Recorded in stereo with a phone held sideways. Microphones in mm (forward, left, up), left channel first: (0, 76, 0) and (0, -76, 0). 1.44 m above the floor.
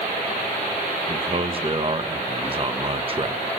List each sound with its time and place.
1.1 s a man speaking: 35° right (ahead or behind), 1.4 m